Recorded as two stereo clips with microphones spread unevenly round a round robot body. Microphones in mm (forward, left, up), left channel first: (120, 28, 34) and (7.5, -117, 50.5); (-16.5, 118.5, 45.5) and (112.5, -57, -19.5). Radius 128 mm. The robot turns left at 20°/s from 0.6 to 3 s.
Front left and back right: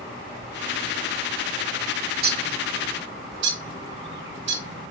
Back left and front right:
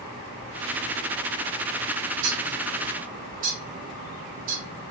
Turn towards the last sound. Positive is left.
turn(degrees=-110)